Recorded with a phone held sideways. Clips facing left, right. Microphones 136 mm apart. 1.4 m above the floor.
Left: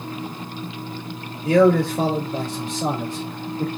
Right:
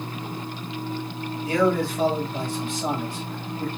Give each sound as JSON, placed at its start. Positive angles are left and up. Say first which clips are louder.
{"t": 1.4, "sound": "a man speaking", "louder": "left 7 dB", "side_deg": 85, "distance_m": 3.5}